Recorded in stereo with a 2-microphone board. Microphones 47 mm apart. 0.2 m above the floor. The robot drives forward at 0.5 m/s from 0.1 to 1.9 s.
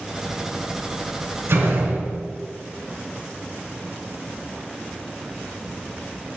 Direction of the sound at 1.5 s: 65° right (ahead or behind).